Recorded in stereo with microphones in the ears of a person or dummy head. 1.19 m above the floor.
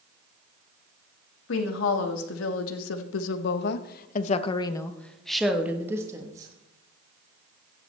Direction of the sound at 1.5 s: 75° left (ahead or behind).